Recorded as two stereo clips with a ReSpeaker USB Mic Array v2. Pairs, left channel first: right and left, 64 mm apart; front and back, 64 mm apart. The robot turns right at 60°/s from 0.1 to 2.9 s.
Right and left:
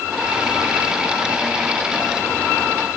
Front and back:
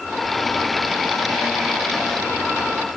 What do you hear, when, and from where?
Only background noise.